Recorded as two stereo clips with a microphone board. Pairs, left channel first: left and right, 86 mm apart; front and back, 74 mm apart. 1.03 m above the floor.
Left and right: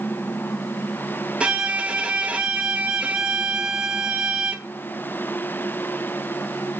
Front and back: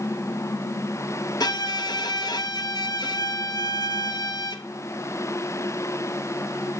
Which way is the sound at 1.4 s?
15° right.